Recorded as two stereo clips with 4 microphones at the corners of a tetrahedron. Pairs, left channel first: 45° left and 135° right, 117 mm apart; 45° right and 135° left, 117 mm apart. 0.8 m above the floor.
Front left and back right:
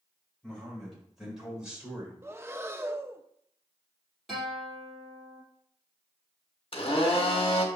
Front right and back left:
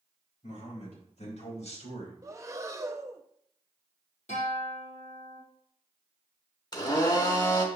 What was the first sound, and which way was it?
A man speaking, 40° right.